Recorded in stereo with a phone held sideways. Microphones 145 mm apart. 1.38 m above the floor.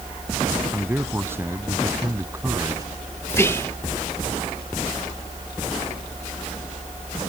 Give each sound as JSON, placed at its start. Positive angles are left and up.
{"t": 0.7, "sound": "a man speaking", "side_deg": -15}
{"t": 3.3, "sound": "whispering", "side_deg": 20}